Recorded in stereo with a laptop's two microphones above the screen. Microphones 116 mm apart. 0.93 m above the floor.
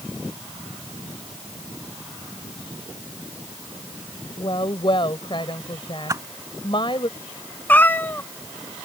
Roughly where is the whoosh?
Right.